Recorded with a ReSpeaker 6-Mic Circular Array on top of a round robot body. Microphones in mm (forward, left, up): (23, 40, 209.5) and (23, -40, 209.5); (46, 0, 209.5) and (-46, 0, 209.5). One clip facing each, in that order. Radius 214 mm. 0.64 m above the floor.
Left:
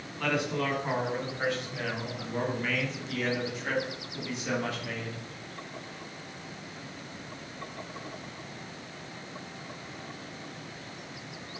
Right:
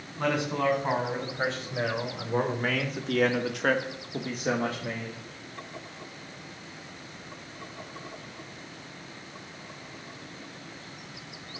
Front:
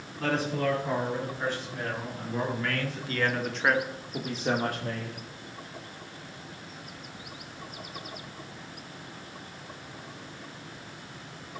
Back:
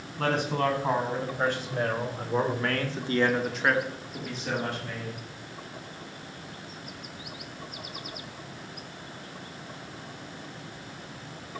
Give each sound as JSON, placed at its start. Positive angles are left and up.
{"t": 0.2, "sound": "a man speaking", "azimuth_deg": -160, "distance_m": 5.5}